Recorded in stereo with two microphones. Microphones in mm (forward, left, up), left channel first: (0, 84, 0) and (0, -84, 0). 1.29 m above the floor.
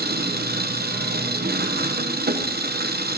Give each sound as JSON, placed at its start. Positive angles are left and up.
{"t": 0.0, "sound": "an engine running", "side_deg": -70, "distance_m": 0.8}